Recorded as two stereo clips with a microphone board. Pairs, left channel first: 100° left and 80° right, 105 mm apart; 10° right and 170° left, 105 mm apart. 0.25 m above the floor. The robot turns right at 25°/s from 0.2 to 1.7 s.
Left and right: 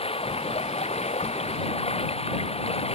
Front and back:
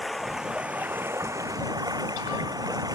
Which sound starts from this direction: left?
Running water, at 0.0 s.